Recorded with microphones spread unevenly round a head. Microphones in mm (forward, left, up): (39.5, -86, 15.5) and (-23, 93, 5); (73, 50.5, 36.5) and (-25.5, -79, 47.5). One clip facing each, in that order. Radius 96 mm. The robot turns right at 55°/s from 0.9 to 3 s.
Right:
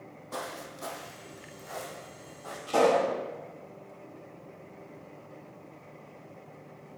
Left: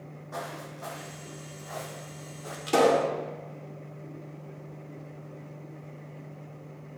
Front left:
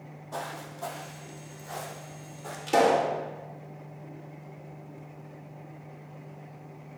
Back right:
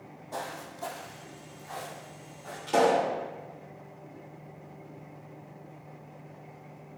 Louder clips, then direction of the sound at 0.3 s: Even, front left 1 dB; 55° right.